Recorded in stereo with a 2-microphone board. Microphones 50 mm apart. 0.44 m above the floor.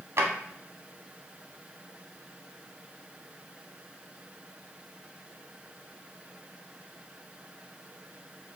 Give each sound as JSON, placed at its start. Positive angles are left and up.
{"t": 0.2, "sound": "a drawer", "side_deg": -65, "distance_m": 0.7}